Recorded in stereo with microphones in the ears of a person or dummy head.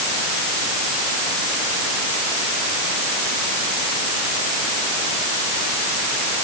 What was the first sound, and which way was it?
Only background noise.